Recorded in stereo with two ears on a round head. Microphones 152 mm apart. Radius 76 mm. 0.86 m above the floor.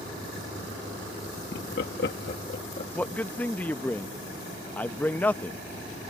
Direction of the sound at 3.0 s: 10° left (ahead or behind).